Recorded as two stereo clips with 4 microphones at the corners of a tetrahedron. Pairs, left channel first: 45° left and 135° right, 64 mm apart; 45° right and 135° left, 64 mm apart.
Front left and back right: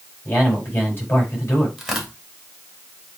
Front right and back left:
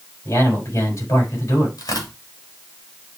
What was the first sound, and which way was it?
A man speaking, 10° right.